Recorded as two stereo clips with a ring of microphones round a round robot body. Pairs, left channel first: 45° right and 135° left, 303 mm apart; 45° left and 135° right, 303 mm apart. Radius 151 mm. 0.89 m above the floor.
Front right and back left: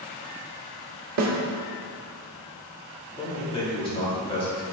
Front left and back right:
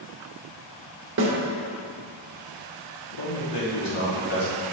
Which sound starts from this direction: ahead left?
A man speaking, at 3.2 s.